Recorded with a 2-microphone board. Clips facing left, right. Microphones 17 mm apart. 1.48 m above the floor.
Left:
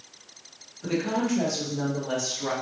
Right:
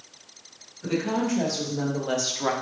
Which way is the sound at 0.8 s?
5° left (ahead or behind).